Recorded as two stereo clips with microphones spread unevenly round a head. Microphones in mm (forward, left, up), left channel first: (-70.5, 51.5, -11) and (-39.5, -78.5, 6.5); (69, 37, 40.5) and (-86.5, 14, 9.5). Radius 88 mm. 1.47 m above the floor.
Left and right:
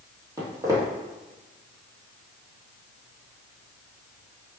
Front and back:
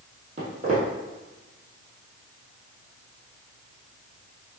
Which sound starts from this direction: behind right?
Footsteps, at 0.4 s.